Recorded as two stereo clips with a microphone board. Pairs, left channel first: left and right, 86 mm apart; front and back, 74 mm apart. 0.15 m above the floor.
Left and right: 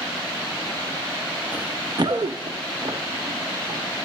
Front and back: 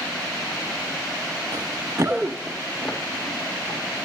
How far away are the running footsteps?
About 0.7 m.